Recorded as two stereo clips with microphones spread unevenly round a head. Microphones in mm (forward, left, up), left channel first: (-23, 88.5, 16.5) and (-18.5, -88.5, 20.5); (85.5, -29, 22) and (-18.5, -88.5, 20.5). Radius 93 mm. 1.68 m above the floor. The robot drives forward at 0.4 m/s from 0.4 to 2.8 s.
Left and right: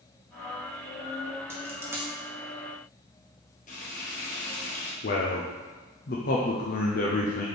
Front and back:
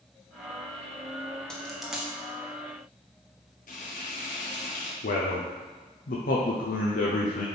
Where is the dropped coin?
45° right, 1.0 m; by 2.1 s 95° right, 1.0 m.